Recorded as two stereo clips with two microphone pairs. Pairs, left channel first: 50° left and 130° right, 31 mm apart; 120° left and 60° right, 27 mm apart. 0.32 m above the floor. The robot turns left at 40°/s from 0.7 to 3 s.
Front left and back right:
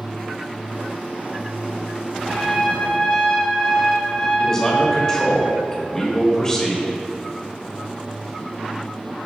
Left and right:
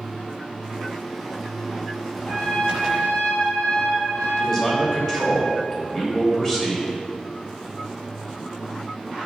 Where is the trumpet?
145° left, 1.4 m; by 5.4 s 115° left, 1.4 m.